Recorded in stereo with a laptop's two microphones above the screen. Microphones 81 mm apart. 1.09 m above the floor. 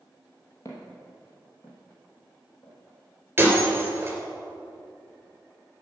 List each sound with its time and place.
0.7 s footsteps: 40° left (ahead or behind), 2 m
3.4 s breaking glass: 25° right (ahead or behind), 3 m